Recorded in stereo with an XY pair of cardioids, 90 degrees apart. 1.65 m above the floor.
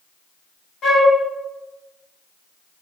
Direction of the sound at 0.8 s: 65° left.